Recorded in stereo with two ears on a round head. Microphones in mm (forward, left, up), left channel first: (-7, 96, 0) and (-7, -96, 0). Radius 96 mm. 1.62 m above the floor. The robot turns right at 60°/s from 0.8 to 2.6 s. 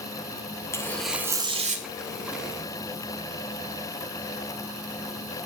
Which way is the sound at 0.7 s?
165° left.